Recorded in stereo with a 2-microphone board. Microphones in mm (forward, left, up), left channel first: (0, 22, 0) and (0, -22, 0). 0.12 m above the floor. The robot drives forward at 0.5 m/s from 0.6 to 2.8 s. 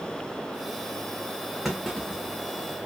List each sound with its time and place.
1.6 s a clunk: centre (ahead or behind), 1.6 m